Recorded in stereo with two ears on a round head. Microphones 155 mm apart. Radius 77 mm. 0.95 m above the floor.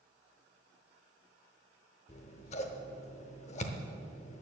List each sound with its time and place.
2.1 s scissors: 40° left (ahead or behind), 0.8 m